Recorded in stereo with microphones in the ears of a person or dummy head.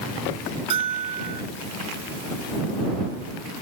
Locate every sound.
0.7 s a bell: 35° right (ahead or behind)